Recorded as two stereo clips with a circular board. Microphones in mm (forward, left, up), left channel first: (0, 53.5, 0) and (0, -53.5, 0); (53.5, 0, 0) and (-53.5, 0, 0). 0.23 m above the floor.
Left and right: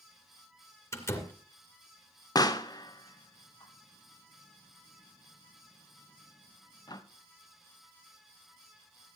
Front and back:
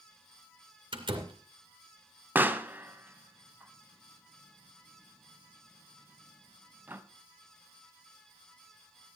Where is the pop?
115° left, 0.8 m.